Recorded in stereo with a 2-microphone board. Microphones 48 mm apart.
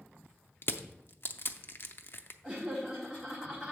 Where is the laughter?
10° right (ahead or behind), 1.4 m.